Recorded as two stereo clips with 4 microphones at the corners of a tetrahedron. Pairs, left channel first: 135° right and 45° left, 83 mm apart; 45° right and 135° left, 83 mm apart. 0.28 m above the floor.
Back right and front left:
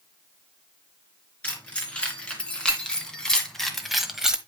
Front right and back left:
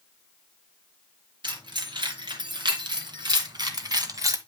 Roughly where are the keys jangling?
Behind left.